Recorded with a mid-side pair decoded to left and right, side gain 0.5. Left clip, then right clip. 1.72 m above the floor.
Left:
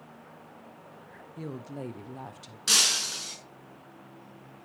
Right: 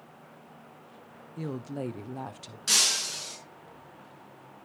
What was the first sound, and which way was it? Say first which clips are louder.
A woman speaking: right 3 dB; 20° right.